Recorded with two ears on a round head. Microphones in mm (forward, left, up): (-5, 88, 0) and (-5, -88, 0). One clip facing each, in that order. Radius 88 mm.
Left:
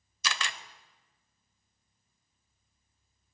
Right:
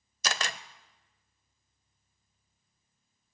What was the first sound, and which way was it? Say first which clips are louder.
A camera shutter: right 3 dB; 35° right (ahead or behind).